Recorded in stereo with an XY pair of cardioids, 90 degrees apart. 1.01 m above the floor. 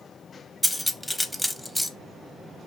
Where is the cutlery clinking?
5° left, 0.6 m.